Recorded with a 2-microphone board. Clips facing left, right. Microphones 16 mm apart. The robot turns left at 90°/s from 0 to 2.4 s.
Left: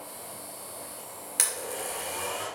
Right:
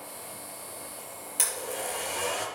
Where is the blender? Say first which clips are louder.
Even; 40° left (ahead or behind), 3 m; by 2.5 s 50° right (ahead or behind), 3 m.